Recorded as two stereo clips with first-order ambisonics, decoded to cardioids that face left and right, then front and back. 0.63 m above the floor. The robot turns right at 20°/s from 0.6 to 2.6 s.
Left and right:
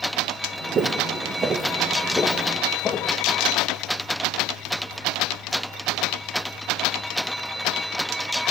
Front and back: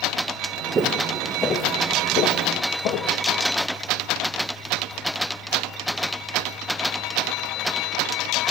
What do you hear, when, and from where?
0.8 s footsteps: 125° right, 0.7 m; by 3.1 s 25° left, 1.3 m